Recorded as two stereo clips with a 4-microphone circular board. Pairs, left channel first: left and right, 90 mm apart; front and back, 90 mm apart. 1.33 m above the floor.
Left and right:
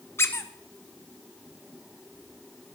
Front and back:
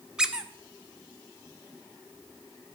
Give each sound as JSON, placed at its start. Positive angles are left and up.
{"t": 0.2, "sound": "a squeak", "azimuth_deg": 110, "distance_m": 0.7}